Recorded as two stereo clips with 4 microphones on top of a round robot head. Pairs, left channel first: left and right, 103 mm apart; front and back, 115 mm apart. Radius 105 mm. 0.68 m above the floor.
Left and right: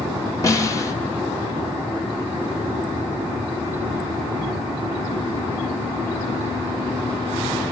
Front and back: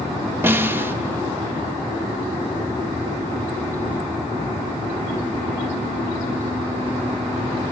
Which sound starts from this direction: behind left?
A snare drum, at 0.4 s.